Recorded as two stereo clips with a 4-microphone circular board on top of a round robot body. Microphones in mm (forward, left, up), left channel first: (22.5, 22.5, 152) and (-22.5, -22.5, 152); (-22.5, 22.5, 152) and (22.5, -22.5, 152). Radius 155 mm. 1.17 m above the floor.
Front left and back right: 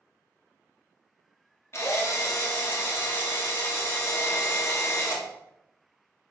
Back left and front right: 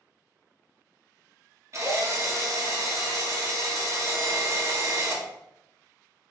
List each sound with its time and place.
1.7 s a drill: straight ahead, 2.5 m